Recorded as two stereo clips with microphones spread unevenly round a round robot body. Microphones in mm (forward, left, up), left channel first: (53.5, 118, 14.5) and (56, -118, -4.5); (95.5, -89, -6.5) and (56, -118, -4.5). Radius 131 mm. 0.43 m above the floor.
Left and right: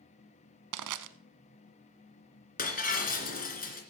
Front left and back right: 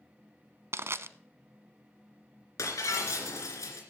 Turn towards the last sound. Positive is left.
turn(degrees=35)